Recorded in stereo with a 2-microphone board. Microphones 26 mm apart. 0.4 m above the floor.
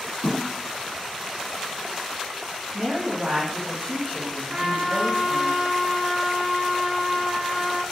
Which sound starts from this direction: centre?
A thud, at 0.2 s.